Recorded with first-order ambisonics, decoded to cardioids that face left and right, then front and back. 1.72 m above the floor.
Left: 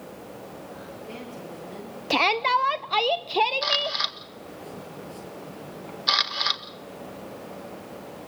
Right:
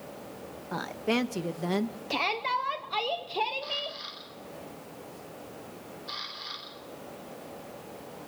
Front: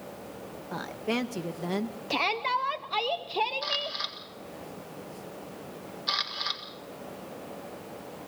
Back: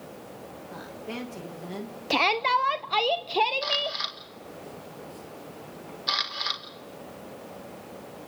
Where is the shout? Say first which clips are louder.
Left 8 dB, back 5 dB; 125° left, 0.6 m.